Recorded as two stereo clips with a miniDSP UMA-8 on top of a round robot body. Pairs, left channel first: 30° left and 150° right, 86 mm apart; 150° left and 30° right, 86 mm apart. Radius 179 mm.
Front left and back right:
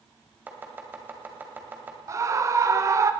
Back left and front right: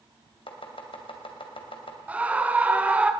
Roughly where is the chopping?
Behind left.